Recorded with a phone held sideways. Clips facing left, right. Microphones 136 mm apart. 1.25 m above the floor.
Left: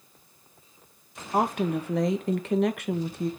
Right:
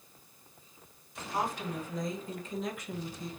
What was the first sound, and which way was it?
A woman speaking, 65° left (ahead or behind).